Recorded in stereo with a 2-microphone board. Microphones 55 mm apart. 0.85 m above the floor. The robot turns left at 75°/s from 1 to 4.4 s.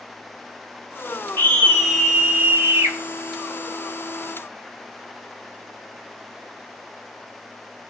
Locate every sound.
1.4 s a scream: 40° left, 7 m; by 3.0 s 80° right, 7 m